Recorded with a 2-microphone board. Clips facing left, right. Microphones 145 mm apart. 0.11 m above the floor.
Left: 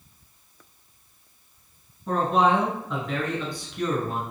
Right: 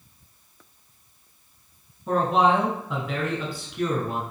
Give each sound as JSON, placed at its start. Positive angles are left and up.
{"t": 2.1, "sound": "a man speaking", "side_deg": -5, "distance_m": 1.3}